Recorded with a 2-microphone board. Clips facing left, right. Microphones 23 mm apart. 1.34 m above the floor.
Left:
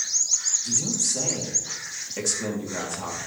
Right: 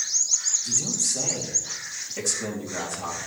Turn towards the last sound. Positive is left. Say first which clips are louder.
# even
turn(degrees=20)  # may be behind; listen again after turning